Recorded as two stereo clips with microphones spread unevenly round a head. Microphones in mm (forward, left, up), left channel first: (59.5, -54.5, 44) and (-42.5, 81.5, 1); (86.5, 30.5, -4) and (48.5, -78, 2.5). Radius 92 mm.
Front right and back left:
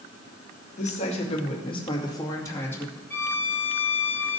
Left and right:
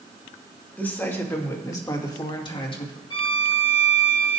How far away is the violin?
About 1.5 m.